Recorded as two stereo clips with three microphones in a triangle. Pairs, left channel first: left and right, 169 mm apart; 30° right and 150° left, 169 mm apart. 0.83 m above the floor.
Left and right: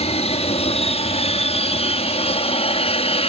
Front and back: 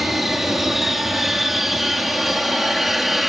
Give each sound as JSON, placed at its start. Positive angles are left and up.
{"t": 0.0, "sound": "an aircraft", "azimuth_deg": 60}